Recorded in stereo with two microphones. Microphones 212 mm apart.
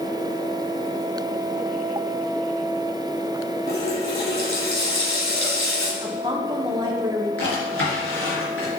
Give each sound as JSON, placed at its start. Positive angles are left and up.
{"t": 3.7, "sound": "a running tap", "side_deg": 75, "distance_m": 3.5}
{"t": 6.0, "sound": "a woman speaking", "side_deg": -20, "distance_m": 2.0}
{"t": 7.4, "sound": "a drawer", "side_deg": 80, "distance_m": 4.0}